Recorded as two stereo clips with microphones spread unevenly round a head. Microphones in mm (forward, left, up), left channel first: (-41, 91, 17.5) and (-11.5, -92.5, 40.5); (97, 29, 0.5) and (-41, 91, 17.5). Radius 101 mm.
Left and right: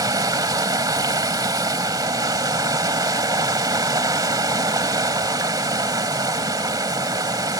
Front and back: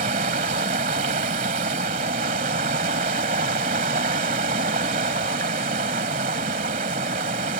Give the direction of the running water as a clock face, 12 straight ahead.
5 o'clock.